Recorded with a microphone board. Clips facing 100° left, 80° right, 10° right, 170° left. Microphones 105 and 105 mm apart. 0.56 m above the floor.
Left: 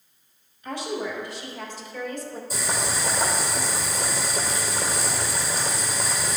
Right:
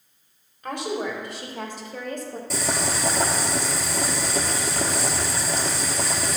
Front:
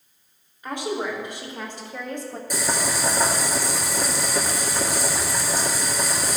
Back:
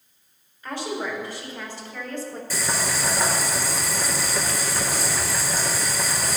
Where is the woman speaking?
80° right, 2.5 m.